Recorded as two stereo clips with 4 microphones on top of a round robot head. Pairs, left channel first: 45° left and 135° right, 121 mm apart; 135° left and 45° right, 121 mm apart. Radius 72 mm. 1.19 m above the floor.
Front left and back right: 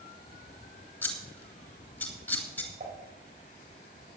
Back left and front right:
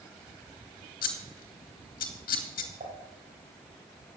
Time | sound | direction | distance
1.0 | scissors | 120° left | 2.5 m
2.8 | dishes clattering | 90° right | 5 m